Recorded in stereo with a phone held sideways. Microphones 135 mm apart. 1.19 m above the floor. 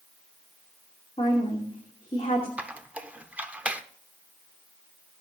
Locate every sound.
1.2 s a woman speaking: 50° left (ahead or behind), 2.5 m
2.6 s a squeak: 10° right (ahead or behind), 0.8 m